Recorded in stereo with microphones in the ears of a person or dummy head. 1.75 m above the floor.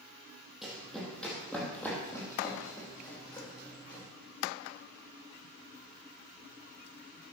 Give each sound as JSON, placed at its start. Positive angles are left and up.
{"t": 0.6, "sound": "running footsteps", "side_deg": 0, "distance_m": 4.5}